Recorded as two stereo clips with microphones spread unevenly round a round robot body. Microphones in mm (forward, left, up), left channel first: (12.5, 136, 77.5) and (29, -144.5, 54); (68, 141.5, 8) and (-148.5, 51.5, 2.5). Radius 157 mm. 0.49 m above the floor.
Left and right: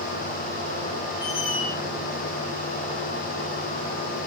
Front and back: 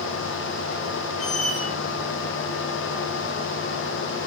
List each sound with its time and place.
1.2 s a squeak: 80° left, 7.5 m